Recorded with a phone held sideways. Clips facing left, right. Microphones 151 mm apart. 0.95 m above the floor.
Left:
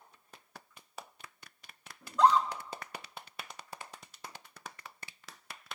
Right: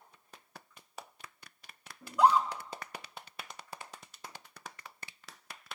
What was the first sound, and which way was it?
A scream, 10° right (ahead or behind).